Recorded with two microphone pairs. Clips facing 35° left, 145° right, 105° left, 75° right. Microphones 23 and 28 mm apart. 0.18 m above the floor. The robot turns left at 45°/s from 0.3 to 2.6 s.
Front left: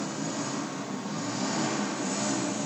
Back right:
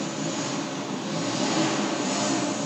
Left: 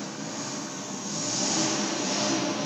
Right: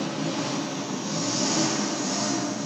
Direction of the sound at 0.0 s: 110° right.